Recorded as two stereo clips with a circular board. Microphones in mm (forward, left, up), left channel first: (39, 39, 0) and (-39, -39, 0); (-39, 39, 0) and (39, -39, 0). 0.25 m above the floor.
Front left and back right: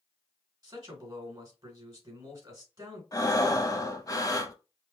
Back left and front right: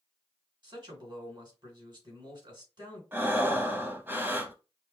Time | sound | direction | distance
0.6 | a man speaking | 90° right | 3 m
3.1 | breathing | 15° left | 0.9 m